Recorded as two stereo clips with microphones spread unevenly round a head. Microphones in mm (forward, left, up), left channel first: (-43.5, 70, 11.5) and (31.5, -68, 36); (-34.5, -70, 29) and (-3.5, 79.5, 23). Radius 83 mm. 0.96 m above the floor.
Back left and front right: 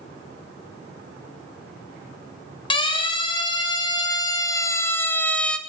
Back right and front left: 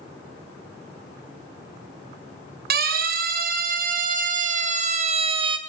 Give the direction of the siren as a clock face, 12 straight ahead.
10 o'clock.